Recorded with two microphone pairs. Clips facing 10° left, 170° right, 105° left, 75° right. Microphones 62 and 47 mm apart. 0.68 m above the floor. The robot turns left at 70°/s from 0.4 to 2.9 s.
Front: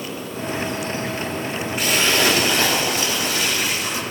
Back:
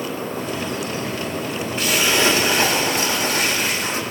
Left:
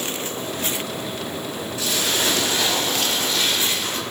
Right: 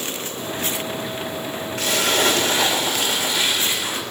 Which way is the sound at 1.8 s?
75° right.